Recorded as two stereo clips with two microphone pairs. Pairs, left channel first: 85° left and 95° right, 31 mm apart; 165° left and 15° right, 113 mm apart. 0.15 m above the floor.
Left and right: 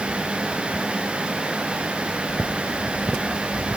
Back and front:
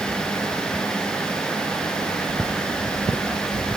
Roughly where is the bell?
I don't hear a bell.